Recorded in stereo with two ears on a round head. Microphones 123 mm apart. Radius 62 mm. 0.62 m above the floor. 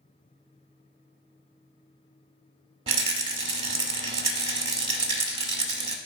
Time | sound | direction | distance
2.9 | a rattle | 40° right (ahead or behind) | 0.8 m